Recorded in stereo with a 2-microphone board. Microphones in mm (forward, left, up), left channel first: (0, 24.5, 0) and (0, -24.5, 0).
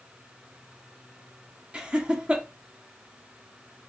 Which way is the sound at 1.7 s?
20° right (ahead or behind).